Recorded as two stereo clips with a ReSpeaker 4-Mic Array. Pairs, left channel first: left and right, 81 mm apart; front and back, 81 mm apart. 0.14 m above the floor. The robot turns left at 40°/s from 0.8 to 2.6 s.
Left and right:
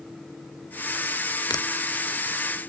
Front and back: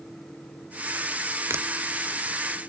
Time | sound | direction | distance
1.5 | a finger snap | 125° left | ?